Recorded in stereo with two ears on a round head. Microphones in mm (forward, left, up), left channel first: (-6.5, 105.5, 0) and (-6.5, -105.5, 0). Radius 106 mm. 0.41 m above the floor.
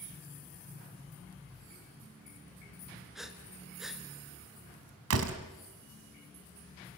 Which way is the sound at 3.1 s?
Centre (ahead or behind).